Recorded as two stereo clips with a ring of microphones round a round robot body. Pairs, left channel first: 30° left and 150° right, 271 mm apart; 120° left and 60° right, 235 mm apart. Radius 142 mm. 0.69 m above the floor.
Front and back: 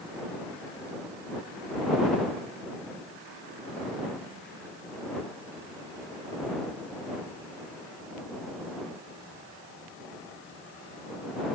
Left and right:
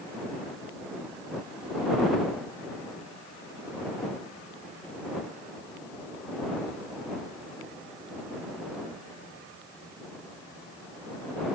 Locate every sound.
Only background noise.